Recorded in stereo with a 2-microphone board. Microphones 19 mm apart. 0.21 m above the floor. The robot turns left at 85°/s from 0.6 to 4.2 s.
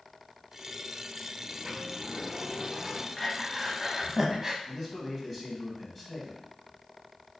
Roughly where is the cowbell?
No cowbell in this recording.